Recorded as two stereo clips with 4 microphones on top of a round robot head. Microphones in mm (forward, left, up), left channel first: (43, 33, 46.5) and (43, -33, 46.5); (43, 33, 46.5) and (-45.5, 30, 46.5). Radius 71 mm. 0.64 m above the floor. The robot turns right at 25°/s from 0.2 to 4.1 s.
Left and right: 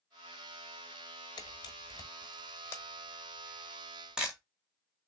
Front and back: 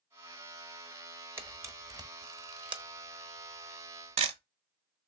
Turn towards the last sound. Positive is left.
turn(degrees=-175)